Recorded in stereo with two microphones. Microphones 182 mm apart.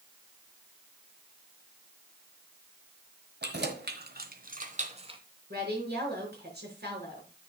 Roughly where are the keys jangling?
Right.